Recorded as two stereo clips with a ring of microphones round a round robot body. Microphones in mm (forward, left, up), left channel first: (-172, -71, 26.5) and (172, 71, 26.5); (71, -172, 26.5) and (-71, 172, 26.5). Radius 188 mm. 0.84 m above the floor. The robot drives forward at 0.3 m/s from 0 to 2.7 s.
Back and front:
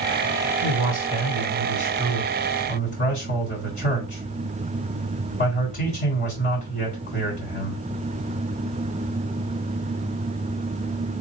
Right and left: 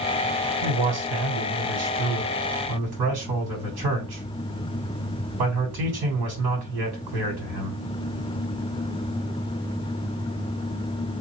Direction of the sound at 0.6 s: 130° left.